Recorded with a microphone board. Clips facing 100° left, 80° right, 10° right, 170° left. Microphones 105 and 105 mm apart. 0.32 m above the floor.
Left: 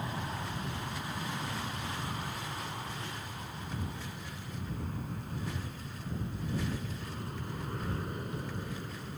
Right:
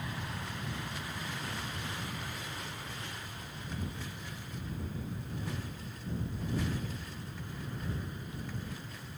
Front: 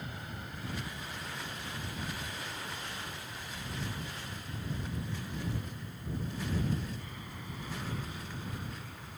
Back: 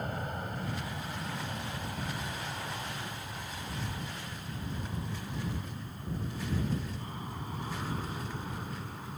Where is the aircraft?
150° left; by 9.2 s 120° left.